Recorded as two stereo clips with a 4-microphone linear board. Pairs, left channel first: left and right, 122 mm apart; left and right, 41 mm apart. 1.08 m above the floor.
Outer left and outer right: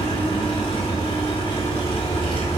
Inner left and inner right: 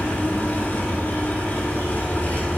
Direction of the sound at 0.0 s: 45° left (ahead or behind).